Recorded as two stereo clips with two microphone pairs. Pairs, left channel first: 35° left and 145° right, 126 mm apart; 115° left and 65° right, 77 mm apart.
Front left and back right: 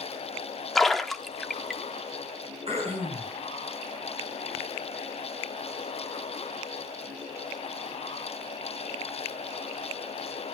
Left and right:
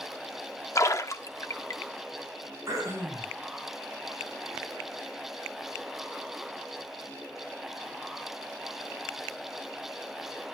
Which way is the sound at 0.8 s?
120° left.